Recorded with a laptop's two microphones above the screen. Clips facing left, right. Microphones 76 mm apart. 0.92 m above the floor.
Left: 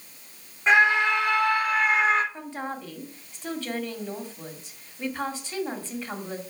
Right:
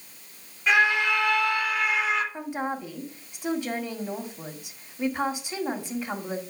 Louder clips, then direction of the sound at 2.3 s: Right 3 dB; 15° right (ahead or behind).